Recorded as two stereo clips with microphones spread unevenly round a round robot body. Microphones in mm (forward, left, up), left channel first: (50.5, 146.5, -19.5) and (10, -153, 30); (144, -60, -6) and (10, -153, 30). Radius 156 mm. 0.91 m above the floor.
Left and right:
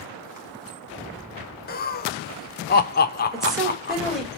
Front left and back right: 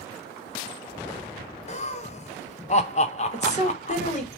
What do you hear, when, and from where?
1.7 s laughter: 40° left, 0.6 m
3.3 s a woman speaking: 5° right, 2.5 m